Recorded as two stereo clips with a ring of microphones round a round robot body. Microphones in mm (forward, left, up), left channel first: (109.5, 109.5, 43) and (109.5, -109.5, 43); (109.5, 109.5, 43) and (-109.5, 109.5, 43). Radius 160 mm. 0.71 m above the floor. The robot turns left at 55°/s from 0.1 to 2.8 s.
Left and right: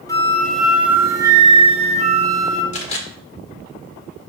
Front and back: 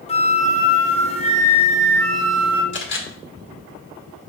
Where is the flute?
30° left, 1.2 m; by 2.6 s 110° right, 1.2 m.